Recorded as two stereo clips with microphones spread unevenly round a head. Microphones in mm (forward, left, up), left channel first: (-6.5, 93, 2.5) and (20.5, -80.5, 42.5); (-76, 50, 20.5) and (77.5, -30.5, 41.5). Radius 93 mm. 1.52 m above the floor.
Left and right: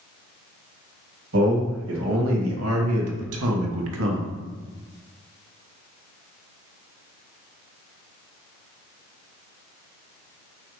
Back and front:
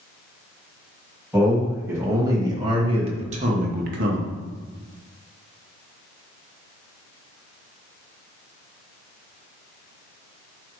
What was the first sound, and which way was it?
A man speaking, 110° right.